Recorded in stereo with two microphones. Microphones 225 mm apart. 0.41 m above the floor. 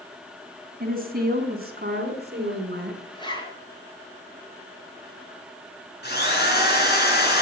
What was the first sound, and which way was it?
A woman speaking, 45° right (ahead or behind).